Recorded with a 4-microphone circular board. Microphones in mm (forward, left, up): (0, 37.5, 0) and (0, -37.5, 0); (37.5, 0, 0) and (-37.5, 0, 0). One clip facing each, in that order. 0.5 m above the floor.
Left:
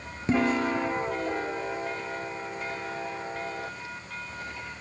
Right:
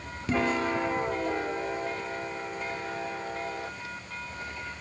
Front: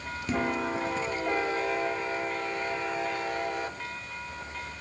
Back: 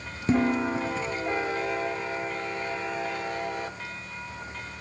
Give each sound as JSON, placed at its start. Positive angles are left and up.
{"t": 0.3, "sound": "dishes clattering", "azimuth_deg": 140, "distance_m": 0.7}